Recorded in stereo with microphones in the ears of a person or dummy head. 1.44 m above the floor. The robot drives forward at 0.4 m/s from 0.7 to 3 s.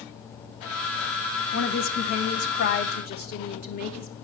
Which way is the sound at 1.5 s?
70° left (ahead or behind).